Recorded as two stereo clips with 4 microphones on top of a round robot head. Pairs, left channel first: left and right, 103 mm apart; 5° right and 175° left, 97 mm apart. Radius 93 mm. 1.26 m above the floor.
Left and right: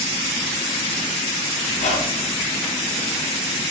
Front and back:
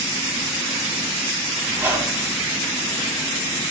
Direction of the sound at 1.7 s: 105° left.